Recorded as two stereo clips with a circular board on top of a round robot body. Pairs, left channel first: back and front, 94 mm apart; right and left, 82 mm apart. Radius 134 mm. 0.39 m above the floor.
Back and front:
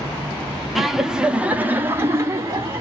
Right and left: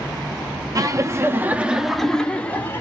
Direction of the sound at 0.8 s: 90° left.